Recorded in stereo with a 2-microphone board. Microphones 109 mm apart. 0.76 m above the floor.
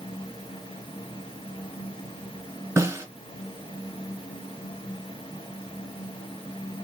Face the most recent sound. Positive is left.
turn(degrees=-25)  # may be behind; listen again after turning